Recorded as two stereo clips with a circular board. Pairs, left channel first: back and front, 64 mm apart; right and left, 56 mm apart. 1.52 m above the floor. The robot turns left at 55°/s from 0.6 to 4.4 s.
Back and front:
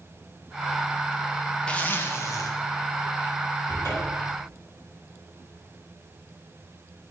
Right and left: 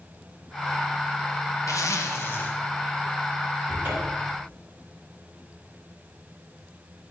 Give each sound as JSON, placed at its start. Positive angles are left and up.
{"t": 1.7, "sound": "a zipper", "azimuth_deg": -105, "distance_m": 1.0}
{"t": 3.7, "sound": "a cupboard door", "azimuth_deg": 160, "distance_m": 4.5}